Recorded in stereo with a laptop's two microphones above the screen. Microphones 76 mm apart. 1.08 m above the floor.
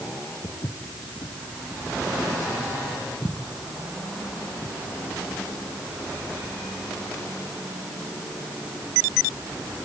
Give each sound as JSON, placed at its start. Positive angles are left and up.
{"t": 0.4, "sound": "footsteps", "side_deg": 70, "distance_m": 3.5}